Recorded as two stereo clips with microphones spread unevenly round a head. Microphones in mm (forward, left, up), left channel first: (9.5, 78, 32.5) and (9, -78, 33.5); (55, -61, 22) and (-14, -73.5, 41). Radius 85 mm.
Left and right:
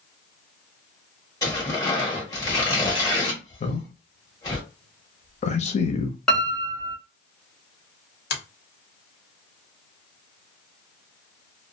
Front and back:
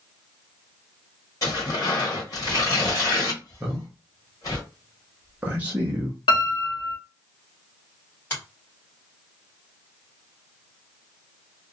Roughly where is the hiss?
No hiss in this recording.